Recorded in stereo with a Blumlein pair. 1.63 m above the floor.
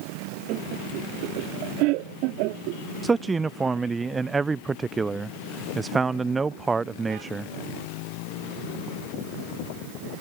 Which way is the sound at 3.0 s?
15° right.